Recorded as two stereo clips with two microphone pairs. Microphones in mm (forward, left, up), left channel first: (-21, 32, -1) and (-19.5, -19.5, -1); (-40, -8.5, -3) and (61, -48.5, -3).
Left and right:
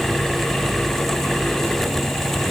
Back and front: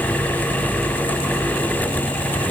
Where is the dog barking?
I don't hear a dog barking.